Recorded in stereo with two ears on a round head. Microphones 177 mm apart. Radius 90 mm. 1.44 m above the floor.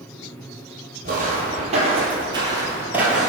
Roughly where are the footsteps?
Right.